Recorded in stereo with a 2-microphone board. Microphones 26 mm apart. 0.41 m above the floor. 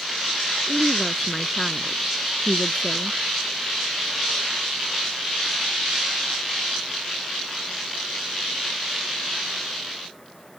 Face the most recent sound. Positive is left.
turn(degrees=15)  # may be behind; listen again after turning